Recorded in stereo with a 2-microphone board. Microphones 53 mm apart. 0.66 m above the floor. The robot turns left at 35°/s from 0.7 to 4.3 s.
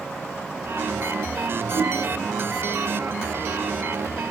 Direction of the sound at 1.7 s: 35° right (ahead or behind).